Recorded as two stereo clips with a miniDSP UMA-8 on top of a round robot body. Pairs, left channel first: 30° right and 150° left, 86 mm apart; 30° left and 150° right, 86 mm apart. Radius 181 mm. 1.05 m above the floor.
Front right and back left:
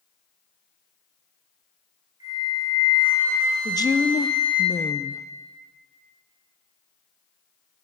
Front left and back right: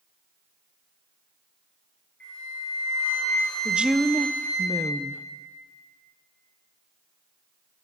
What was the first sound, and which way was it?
A flute, 105° left.